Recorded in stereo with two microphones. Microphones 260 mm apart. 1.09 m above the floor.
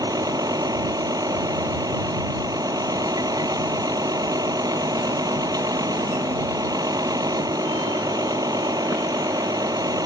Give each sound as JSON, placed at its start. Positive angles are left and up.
{"t": 0.0, "sound": "a vehicle", "side_deg": -15}